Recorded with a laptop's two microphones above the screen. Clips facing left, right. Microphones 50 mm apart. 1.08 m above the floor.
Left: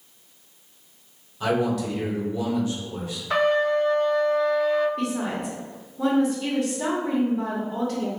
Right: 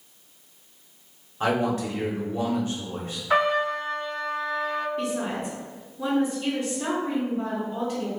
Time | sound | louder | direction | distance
1.4 | a man speaking | left 1 dB | 35° right (ahead or behind) | 0.9 m
3.3 | a trumpet | left 2 dB | 10° right (ahead or behind) | 0.6 m
5.0 | a woman speaking | left 1 dB | 65° left (ahead or behind) | 1.6 m